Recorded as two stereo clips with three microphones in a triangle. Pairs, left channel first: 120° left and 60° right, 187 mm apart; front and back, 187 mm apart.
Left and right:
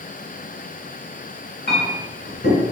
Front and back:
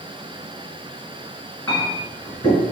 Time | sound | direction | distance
1.7 | a clink | 80° left | 1.7 m